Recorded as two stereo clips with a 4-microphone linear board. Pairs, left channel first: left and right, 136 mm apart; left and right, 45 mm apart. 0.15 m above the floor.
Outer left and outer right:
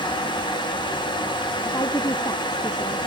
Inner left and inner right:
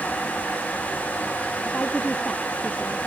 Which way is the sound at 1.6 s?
25° left (ahead or behind).